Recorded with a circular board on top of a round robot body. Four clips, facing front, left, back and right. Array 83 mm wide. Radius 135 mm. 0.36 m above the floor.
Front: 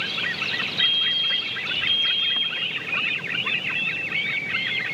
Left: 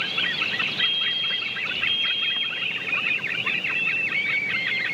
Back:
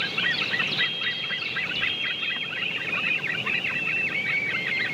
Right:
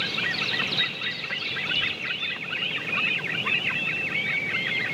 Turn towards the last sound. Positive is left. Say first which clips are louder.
# left 2 dB, front 2 dB
turn(degrees=30)